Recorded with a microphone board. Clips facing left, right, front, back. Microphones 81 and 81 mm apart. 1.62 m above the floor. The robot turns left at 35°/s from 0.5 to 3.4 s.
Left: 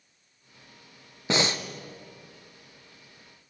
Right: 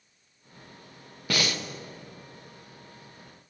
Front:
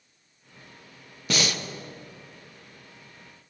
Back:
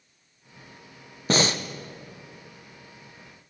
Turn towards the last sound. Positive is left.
turn(degrees=70)